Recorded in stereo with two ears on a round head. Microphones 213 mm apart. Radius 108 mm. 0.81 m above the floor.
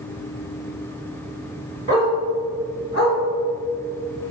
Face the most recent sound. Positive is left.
turn(degrees=60)  # may be behind; listen again after turning